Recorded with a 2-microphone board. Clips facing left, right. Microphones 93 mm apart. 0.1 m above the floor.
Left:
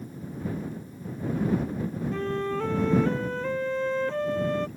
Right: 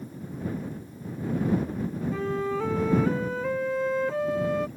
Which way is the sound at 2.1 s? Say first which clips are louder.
Even; 5° right (ahead or behind).